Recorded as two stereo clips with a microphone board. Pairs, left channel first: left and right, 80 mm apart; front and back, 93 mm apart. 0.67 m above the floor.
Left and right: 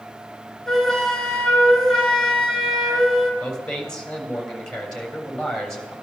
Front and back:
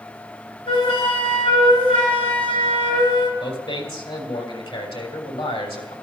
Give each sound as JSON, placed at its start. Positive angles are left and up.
{"t": 0.7, "sound": "a flute", "azimuth_deg": 5, "distance_m": 3.0}
{"t": 3.4, "sound": "a man speaking", "azimuth_deg": 10, "distance_m": 3.5}